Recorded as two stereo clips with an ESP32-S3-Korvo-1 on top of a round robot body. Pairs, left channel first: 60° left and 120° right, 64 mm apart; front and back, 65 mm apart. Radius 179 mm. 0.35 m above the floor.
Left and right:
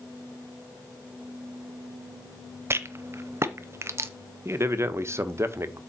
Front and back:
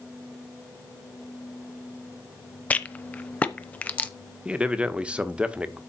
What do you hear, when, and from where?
2.7 s a rattle: 70° right, 0.8 m
4.5 s a man speaking: 115° right, 1.4 m